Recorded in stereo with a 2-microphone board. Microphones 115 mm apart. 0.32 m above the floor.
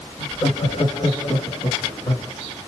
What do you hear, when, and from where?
0.2 s laughter: 40° left (ahead or behind), 1.2 m; by 2.3 s 60° left (ahead or behind), 2.5 m